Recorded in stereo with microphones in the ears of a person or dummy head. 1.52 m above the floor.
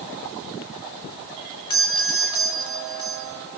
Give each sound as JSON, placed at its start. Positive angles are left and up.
{"t": 1.7, "sound": "a doorbell", "side_deg": 25, "distance_m": 3.5}